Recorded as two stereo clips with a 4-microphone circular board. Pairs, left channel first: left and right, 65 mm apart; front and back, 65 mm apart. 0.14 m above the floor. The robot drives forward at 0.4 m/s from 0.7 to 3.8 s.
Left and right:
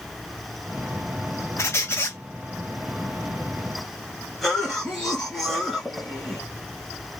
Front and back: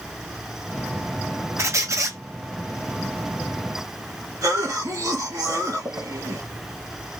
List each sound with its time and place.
1.6 s a squeak: 135° left, 1.0 m; by 2.2 s 145° left, 1.2 m
4.4 s a cough: 175° left, 2 m